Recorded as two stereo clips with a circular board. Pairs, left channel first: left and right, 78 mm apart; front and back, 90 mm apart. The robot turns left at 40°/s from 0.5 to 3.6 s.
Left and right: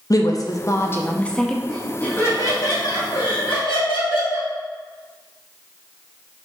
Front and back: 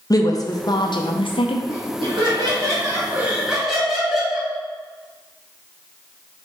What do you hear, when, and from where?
0.1 s a woman speaking: 45° left, 0.6 m; by 1.6 s 5° left, 0.6 m
1.7 s laughter: 170° left, 1.8 m; by 4.5 s 95° left, 1.8 m